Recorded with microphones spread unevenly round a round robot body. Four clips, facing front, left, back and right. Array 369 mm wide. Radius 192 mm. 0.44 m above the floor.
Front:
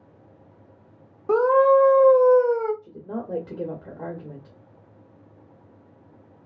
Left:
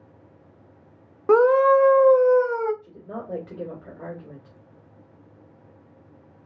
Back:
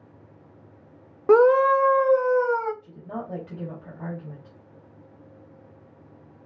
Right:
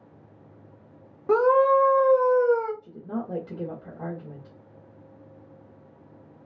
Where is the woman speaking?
5° left, 1.9 m.